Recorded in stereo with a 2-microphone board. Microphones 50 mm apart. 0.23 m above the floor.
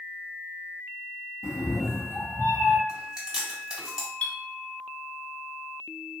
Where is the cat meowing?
85° left, 0.6 m; by 2.8 s 45° left (ahead or behind), 1.5 m.